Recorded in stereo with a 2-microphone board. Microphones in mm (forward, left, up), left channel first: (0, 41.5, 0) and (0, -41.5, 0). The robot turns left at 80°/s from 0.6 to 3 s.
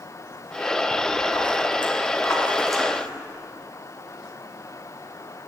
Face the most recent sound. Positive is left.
turn(degrees=-20)